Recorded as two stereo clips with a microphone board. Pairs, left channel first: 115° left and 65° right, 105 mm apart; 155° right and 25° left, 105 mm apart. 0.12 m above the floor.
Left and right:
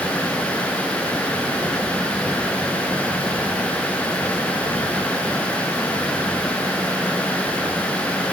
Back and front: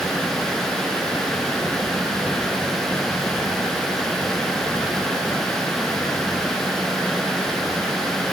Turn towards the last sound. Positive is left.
No sound to turn to.